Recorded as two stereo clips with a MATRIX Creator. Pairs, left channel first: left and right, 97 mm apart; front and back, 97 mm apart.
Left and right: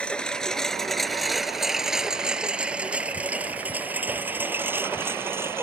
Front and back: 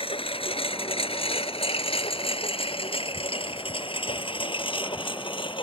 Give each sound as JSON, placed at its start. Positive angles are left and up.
{"t": 0.0, "sound": "a lawn mower", "azimuth_deg": 10}